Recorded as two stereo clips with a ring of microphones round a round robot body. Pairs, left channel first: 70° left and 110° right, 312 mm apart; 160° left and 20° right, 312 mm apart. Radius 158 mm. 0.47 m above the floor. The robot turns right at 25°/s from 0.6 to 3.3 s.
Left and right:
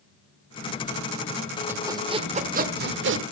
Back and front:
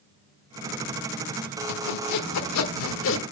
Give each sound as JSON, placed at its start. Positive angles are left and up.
{"t": 1.7, "sound": "sawing", "azimuth_deg": 165, "distance_m": 1.1}